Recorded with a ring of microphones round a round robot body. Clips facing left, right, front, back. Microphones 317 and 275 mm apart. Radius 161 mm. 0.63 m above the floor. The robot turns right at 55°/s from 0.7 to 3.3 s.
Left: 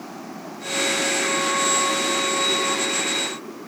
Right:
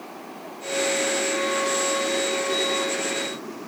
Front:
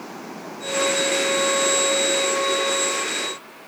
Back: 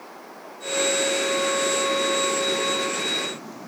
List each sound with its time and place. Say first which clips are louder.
0.0 s running water: left 3 dB, front 8 dB; 40° left; by 3.7 s straight behind